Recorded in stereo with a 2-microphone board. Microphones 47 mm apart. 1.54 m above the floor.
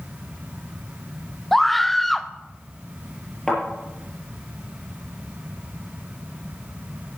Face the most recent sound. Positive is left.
turn(degrees=10)  # may be behind; listen again after turning